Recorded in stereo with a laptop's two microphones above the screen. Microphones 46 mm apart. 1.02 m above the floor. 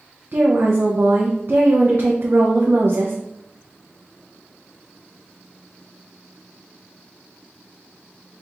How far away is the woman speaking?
About 0.6 m.